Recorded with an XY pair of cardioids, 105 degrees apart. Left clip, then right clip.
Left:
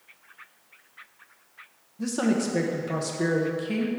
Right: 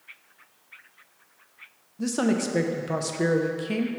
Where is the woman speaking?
20° right, 0.8 m.